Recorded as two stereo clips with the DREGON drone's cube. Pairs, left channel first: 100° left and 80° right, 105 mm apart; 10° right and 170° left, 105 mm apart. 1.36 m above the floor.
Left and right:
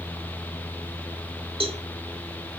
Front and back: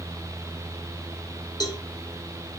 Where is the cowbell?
60° right, 2 m.